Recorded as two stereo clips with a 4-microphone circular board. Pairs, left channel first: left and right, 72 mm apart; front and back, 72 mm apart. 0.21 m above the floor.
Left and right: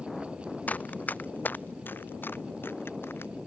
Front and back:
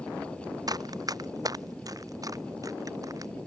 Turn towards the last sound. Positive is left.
turn(degrees=145)